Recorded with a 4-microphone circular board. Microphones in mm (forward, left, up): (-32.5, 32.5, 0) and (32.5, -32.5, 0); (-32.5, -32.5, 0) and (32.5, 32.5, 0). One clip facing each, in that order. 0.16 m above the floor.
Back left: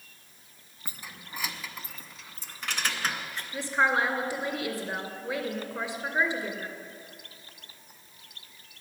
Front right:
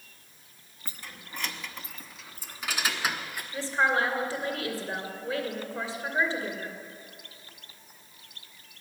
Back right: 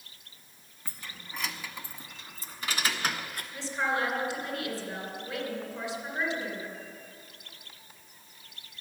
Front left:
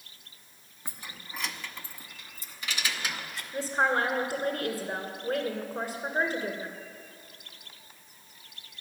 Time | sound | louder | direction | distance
0.8 | keys jangling | even, front left 1 dB | 80° left | 0.8 m
3.5 | a woman speaking | even, front left 4 dB | 70° left | 2.5 m